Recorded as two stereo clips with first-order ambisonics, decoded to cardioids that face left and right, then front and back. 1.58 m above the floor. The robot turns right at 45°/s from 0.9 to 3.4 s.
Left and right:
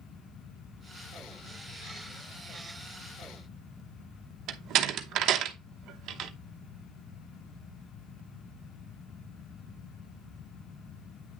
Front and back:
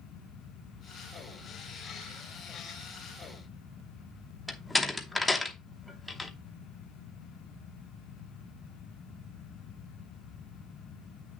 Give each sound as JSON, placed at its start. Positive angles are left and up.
{"t": 4.5, "sound": "a door slam", "azimuth_deg": -85, "distance_m": 0.9}